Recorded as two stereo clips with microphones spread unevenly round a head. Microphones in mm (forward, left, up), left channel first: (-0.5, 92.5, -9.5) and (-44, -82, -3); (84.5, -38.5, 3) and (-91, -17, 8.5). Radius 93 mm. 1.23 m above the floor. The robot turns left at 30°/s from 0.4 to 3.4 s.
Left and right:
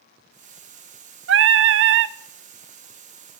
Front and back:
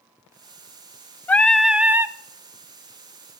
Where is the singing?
90° right, 0.5 m; by 2.1 s 115° right, 0.5 m.